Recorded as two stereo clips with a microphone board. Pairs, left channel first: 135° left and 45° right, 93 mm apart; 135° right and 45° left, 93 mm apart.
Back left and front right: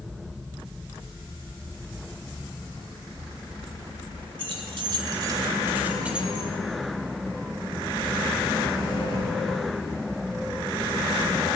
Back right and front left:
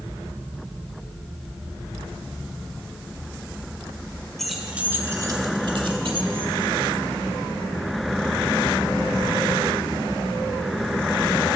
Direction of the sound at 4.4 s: 45° right.